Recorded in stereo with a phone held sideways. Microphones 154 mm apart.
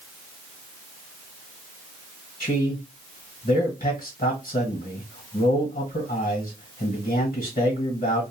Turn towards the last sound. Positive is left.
turn(degrees=55)  # may be behind; listen again after turning